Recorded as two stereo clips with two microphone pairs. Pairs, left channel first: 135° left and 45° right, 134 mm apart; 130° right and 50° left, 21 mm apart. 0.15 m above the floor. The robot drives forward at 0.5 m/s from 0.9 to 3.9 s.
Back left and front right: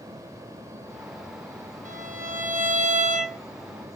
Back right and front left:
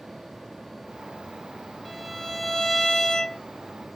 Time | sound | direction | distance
1.9 | a violin | 45° right | 1.5 m